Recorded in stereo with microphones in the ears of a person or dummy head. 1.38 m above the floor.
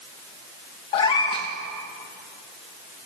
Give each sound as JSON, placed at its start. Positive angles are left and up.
{"t": 0.9, "sound": "a cat meowing", "side_deg": 35, "distance_m": 1.1}